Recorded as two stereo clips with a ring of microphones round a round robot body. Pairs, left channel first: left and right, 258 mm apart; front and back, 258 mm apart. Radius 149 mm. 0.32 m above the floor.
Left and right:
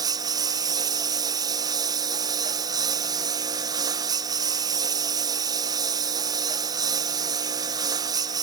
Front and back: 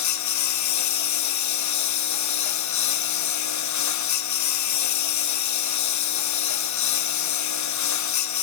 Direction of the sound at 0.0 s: 10° right.